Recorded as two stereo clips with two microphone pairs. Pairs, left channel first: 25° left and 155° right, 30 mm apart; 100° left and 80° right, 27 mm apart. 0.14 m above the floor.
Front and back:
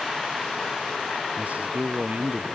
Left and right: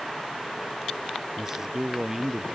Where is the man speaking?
145° right.